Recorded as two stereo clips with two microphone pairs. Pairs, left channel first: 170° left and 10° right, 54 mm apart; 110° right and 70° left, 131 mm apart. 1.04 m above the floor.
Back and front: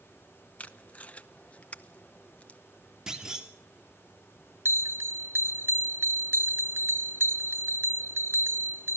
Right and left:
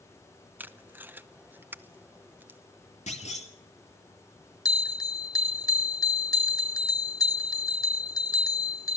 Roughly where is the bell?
Ahead right.